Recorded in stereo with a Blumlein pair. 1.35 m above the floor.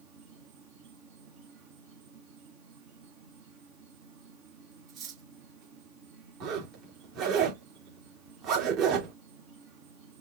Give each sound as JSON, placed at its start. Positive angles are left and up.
{"t": 0.0, "sound": "an insect", "azimuth_deg": -40, "distance_m": 3.0}
{"t": 4.9, "sound": "cutlery clinking", "azimuth_deg": -35, "distance_m": 3.5}
{"t": 6.4, "sound": "a zipper", "azimuth_deg": -35, "distance_m": 3.0}